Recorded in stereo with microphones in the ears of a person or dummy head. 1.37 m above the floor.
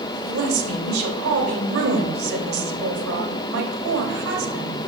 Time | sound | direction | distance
0.3 | a woman speaking | 75° right (ahead or behind) | 2.5 m